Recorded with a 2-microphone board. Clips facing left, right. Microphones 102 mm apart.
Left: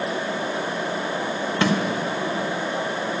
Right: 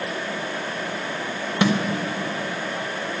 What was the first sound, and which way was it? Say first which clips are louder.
A snare drum: right 1 dB; 20° right (ahead or behind).